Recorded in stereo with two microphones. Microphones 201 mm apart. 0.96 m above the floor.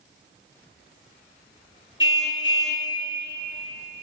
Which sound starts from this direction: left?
A car horn, at 2.0 s.